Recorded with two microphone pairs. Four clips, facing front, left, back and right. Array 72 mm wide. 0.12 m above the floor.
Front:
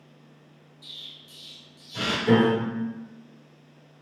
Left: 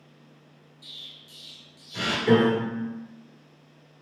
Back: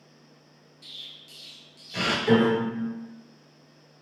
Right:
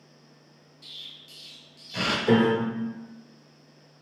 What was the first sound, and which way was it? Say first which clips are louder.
An explosion: even, even; 150° right.